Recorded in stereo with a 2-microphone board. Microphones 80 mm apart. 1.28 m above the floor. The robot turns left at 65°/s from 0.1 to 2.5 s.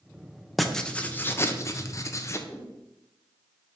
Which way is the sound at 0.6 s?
Straight behind.